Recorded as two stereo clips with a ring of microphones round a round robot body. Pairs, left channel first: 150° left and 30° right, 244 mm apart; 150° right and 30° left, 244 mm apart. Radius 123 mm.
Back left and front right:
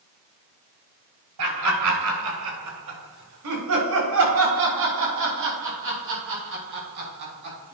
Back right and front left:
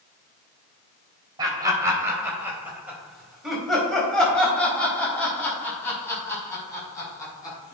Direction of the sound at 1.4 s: 45° right.